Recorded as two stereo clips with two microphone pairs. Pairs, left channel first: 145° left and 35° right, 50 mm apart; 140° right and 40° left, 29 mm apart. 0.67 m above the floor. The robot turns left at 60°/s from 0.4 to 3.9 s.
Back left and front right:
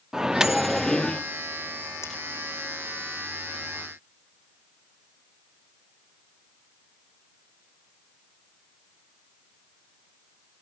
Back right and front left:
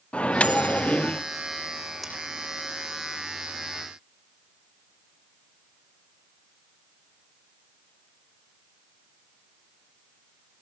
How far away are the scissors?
About 7.5 m.